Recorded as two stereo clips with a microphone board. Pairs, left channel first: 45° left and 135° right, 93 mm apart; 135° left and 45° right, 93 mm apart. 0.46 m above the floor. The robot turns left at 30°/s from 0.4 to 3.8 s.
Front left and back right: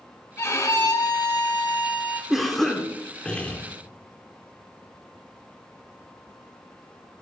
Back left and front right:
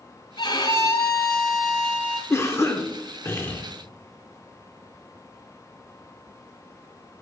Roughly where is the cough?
Behind left.